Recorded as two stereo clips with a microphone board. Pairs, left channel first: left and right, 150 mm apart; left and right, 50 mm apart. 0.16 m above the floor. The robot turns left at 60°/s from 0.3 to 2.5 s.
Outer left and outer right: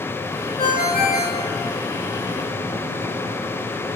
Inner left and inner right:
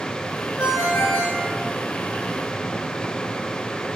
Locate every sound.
0.6 s a ringtone: 35° left (ahead or behind), 9 m; by 4.0 s 30° left (ahead or behind), 9 m